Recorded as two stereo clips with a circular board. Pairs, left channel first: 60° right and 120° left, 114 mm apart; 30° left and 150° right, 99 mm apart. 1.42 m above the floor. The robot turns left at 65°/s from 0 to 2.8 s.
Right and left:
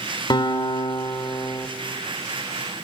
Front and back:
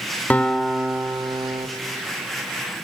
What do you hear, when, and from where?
0.3 s a guitar: 40° right, 1.4 m; by 1.7 s 130° right, 1.4 m